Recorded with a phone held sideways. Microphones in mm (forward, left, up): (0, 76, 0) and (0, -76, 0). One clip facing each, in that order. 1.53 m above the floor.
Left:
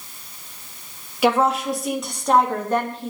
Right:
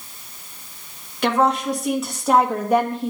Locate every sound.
1.2 s a woman speaking: 10° left (ahead or behind), 2.5 m; by 3.1 s 15° right (ahead or behind), 2.5 m